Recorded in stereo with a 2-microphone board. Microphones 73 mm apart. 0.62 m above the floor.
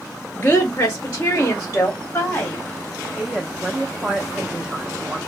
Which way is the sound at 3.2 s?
10° right (ahead or behind).